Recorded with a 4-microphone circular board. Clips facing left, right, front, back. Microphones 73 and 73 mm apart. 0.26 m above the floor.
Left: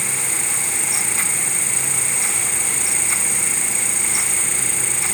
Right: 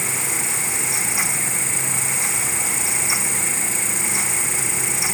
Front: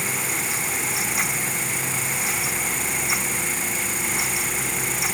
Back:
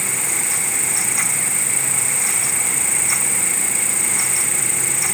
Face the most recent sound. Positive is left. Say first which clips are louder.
# right 1 dB, even
turn(degrees=115)